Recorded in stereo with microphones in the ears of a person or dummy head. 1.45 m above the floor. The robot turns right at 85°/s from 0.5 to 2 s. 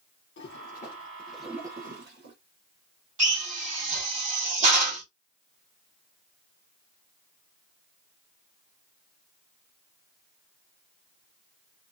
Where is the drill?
35° right (ahead or behind), 1.5 m.